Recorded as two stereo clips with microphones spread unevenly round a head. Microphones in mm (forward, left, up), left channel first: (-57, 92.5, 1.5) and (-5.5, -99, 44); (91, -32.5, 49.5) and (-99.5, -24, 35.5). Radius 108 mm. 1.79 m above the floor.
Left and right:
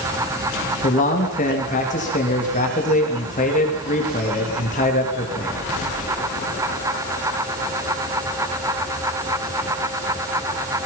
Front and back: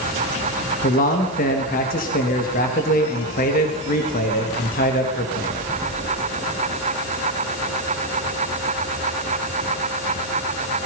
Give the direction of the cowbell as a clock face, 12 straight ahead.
I don't hear a cowbell.